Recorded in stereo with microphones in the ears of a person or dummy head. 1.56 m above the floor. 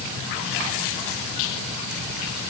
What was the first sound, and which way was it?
Only background noise.